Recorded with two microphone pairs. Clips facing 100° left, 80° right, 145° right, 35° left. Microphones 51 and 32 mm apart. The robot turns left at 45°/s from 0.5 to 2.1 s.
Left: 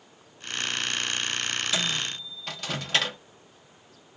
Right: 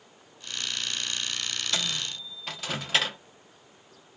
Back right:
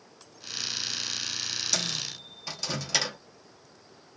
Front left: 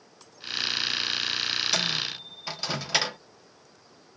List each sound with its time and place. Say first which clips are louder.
1.7 s a microwave: left 3 dB, front left 5 dB; 15° left, 0.5 m; by 3.2 s straight ahead, 0.5 m